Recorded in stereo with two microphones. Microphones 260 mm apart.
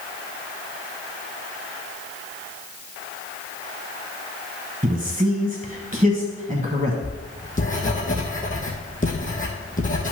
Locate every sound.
4.8 s a man speaking: 30° right (ahead or behind), 1.2 m
7.0 s writing: 30° left (ahead or behind), 2.5 m